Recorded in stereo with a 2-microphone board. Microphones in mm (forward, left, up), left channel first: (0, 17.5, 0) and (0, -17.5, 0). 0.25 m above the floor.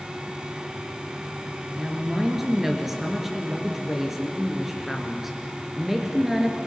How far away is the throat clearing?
I don't hear throat clearing.